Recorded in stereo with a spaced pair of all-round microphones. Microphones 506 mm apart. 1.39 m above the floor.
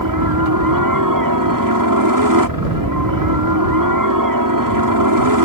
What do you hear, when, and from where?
0.0 s a helicopter: 40° right (ahead or behind)